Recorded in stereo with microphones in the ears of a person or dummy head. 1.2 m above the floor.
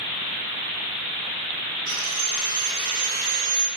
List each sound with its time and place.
1.9 s sawing: 75° right (ahead or behind), 0.8 m